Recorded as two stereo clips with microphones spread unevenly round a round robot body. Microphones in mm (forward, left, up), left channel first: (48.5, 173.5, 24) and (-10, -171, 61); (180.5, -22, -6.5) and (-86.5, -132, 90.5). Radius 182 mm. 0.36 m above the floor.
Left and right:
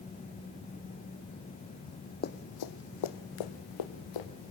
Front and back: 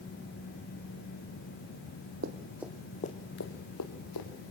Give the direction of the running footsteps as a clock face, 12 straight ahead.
7 o'clock.